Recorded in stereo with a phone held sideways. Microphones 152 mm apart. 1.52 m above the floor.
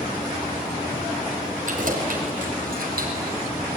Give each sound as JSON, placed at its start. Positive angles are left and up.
{"t": 1.7, "sound": "keys jangling", "side_deg": -60, "distance_m": 4.5}